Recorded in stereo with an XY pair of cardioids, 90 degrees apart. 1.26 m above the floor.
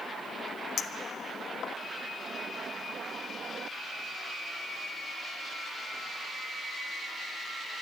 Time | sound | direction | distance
0.8 | a clink | 70° left | 1.0 m